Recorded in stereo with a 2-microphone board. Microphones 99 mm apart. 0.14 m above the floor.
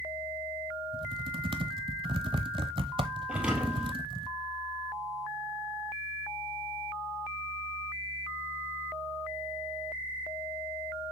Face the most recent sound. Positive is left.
turn(degrees=-10)  # may be behind; listen again after turning